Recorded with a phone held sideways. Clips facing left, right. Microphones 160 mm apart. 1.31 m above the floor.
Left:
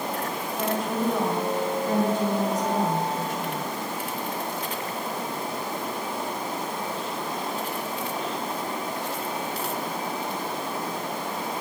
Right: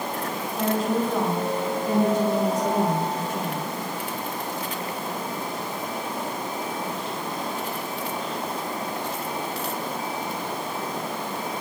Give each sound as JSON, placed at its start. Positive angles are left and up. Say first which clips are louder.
{"t": 0.6, "sound": "a woman speaking", "louder": "right 4 dB", "side_deg": -20, "distance_m": 2.5}